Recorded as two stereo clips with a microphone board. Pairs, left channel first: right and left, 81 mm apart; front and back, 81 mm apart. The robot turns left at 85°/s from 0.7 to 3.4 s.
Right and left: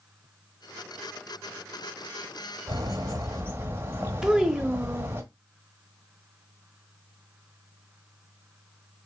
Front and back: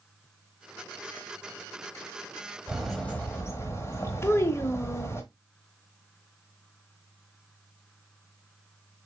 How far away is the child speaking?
About 0.7 m.